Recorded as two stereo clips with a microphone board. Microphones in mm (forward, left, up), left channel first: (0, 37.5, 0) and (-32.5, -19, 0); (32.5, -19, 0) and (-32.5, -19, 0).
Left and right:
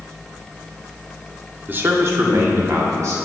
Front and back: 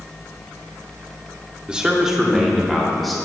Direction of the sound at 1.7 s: 115° right.